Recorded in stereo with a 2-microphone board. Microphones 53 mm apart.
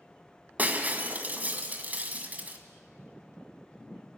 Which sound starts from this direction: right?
Breaking glass, at 0.6 s.